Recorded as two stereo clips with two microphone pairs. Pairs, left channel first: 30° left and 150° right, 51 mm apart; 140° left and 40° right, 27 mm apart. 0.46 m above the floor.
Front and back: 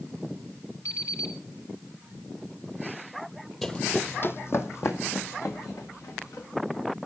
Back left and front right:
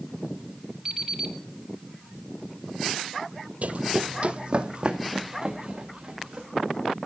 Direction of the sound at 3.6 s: 45° right.